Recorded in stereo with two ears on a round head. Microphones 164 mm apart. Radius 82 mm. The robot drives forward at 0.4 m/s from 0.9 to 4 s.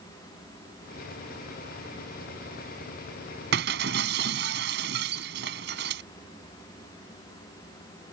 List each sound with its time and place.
3.5 s breaking glass: 60° right (ahead or behind)